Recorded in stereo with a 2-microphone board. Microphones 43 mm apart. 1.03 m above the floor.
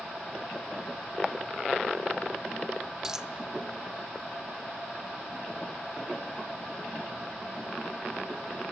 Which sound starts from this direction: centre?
A dropped coin, at 3.0 s.